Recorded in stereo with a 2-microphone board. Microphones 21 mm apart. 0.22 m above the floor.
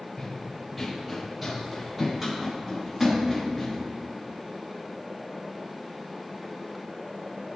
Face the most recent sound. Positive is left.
turn(degrees=-5)  # may be behind; listen again after turning